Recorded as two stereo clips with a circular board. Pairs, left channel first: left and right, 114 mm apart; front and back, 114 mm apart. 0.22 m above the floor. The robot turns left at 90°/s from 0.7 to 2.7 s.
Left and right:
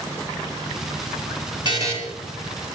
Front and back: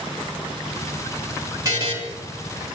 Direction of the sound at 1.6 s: 125° right.